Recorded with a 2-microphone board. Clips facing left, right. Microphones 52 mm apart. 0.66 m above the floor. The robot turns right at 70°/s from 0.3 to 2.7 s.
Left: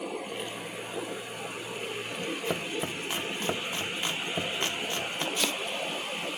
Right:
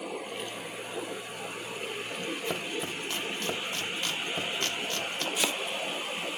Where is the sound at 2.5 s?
5° left (ahead or behind), 1.2 m; by 5.3 s 20° left (ahead or behind), 1.2 m.